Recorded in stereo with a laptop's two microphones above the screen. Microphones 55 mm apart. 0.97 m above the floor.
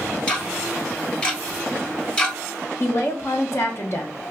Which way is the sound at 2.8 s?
55° left (ahead or behind).